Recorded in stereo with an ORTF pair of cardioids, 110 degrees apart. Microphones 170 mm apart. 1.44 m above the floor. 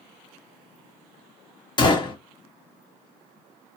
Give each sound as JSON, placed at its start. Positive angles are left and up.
{"t": 1.8, "sound": "a gunshot", "azimuth_deg": 30, "distance_m": 1.1}